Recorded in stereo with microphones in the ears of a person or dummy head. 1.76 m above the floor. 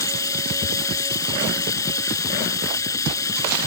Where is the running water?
15° left (ahead or behind).